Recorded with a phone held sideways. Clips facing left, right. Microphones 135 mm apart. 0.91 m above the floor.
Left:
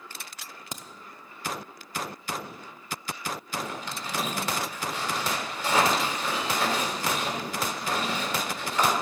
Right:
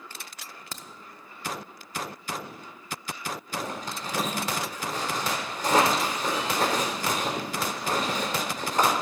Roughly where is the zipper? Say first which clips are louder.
Right 1 dB; right.